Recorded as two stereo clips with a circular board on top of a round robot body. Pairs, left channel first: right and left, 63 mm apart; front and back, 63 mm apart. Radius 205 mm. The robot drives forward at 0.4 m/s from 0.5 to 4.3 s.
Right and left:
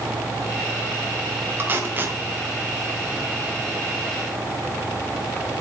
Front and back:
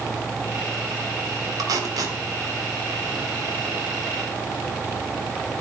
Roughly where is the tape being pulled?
Behind left.